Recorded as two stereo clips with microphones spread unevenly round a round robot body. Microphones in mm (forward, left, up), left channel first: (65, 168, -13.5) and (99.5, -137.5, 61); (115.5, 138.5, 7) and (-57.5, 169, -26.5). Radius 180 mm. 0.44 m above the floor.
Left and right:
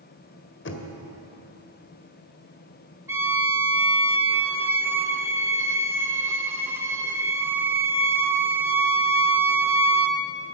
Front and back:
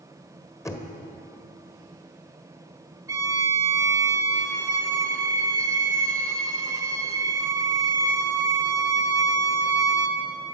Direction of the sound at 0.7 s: 70° left.